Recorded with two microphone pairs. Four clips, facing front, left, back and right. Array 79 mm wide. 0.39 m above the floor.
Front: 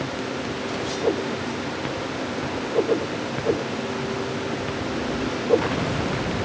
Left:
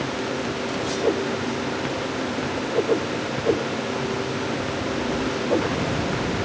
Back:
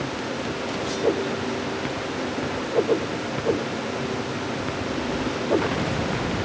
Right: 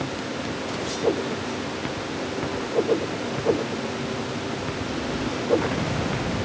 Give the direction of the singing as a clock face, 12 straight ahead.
I don't hear singing.